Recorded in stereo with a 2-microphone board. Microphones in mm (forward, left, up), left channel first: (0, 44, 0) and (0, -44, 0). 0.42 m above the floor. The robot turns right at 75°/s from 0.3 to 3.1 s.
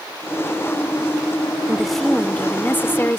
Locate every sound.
1.7 s a woman speaking: 5° right (ahead or behind); by 3.2 s 25° left (ahead or behind)